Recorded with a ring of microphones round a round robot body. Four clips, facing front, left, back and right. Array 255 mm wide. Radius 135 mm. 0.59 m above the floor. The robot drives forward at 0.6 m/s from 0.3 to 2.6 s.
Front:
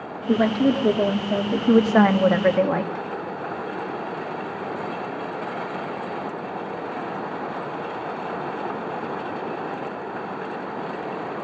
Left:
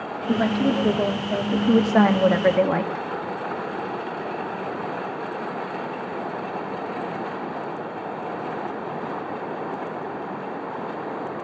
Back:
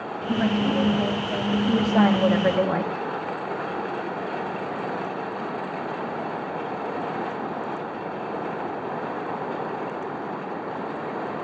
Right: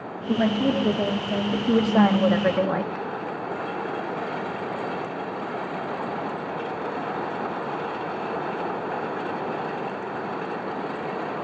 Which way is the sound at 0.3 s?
10° left.